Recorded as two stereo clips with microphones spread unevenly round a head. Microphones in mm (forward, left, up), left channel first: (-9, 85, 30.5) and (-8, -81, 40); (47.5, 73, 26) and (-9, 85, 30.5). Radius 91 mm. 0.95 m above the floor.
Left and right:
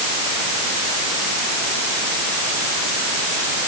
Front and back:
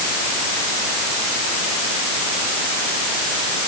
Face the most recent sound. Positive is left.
No sound to turn to.